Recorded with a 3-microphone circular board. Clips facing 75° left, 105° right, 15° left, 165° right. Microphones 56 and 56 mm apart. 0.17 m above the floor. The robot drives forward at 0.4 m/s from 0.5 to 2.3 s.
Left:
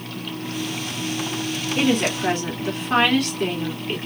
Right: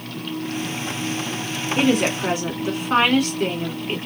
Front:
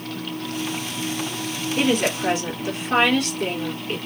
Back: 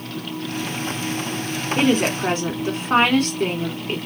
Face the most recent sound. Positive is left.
turn(degrees=-170)